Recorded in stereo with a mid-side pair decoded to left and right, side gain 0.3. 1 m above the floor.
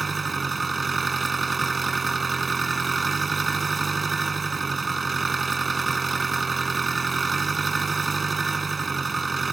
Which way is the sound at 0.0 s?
45° right.